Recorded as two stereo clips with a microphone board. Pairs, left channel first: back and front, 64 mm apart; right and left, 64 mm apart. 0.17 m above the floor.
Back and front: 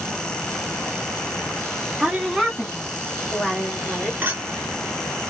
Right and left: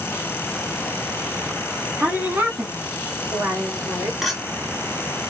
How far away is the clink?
About 0.9 m.